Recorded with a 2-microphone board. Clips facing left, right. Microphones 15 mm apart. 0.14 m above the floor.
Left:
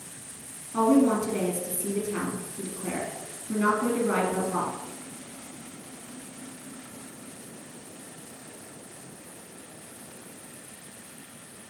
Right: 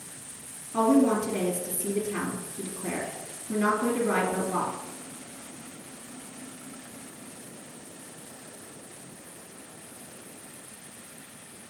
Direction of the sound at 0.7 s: 5° left (ahead or behind).